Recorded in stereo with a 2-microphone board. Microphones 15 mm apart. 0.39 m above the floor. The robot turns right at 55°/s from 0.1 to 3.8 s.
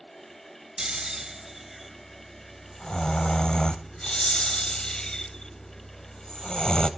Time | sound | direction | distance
0.8 | snoring | 70° right | 0.7 m